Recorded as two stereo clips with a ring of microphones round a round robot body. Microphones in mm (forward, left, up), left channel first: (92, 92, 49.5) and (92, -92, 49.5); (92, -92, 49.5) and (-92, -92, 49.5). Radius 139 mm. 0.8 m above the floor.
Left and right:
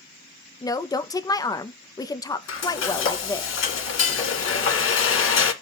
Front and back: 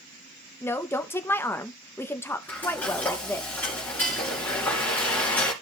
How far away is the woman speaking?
About 0.6 m.